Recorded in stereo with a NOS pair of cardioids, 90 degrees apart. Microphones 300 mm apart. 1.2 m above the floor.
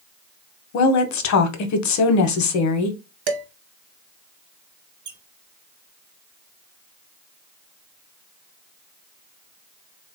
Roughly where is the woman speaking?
Ahead left.